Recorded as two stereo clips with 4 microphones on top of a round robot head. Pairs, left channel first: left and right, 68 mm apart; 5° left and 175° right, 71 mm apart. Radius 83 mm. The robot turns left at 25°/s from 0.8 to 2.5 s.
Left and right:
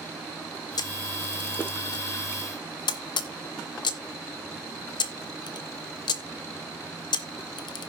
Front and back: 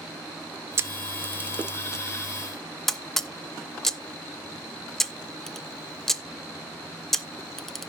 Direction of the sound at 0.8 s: 135° left.